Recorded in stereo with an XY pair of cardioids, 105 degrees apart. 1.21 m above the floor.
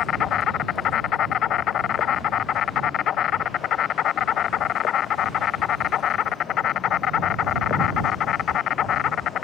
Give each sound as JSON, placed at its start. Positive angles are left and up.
{"t": 0.0, "sound": "an insect", "azimuth_deg": 60}